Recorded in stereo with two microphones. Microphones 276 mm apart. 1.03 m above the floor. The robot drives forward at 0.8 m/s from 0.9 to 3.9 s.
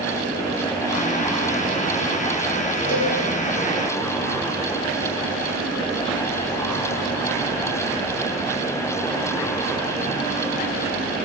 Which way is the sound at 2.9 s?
65° left (ahead or behind).